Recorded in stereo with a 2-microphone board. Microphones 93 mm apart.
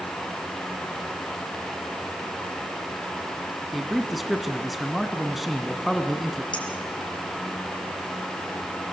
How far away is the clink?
About 5.5 m.